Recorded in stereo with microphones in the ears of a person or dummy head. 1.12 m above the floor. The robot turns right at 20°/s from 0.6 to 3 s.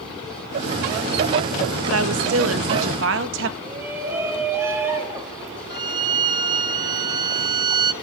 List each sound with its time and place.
1.9 s a woman speaking: 75° right (ahead or behind), 1.5 m; by 3.5 s 70° right (ahead or behind), 1.5 m
3.6 s a shout: 15° right (ahead or behind), 6 m
5.7 s a violin: 25° right (ahead or behind), 1.0 m